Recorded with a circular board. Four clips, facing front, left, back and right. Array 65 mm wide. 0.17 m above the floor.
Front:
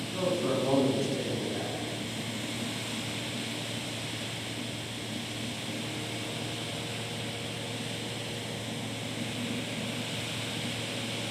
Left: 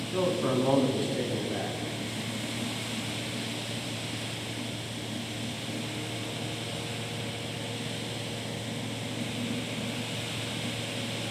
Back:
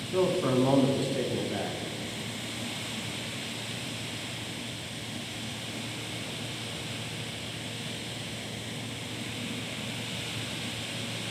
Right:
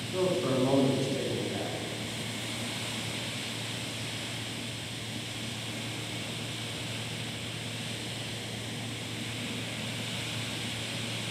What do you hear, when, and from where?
0.1 s a man speaking: 150° left, 1.1 m